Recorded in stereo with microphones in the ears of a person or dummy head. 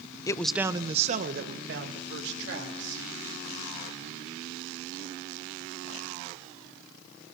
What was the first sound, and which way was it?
A man speaking, 20° left (ahead or behind).